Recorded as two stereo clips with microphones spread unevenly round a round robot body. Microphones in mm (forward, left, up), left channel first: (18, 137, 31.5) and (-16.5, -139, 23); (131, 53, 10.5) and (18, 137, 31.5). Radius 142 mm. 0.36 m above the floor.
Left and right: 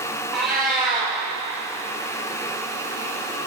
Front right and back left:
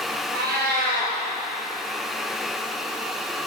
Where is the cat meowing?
175° left, 2.5 m.